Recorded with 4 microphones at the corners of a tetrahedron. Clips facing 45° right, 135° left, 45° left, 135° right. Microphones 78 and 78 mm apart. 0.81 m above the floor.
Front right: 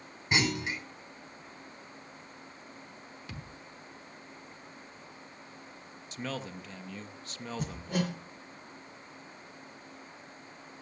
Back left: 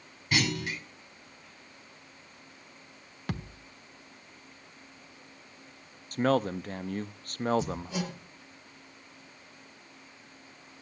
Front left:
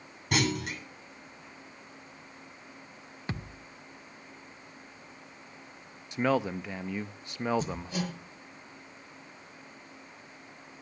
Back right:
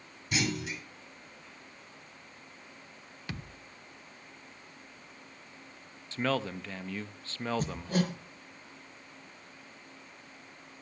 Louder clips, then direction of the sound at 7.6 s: Even, back right 3 dB; 85° right.